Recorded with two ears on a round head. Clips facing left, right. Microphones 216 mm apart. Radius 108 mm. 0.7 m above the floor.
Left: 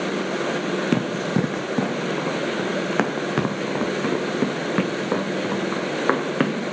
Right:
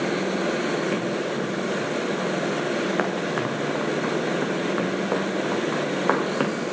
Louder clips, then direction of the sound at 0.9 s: Left 3 dB; 65° left (ahead or behind).